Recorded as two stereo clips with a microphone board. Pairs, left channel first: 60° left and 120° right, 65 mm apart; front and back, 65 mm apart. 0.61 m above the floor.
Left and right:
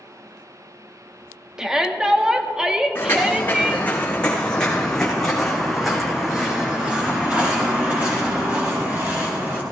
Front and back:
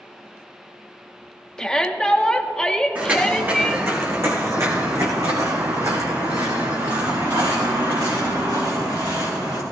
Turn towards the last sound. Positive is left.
turn(degrees=-175)